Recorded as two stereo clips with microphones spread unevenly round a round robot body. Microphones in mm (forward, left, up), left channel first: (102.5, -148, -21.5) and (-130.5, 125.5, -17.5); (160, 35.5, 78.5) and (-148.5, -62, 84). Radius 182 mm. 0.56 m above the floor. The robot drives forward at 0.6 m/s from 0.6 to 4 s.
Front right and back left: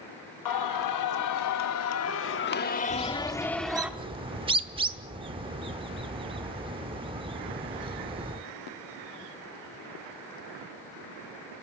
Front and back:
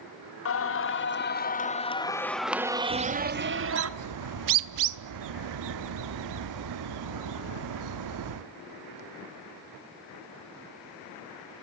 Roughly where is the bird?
Behind right.